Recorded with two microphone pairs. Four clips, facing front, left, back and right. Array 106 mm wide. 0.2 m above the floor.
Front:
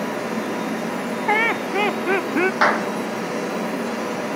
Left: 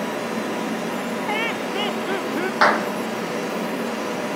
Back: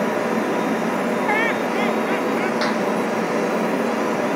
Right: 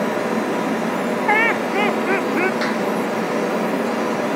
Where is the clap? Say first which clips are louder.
Left 3 dB, front 2 dB; 55° left.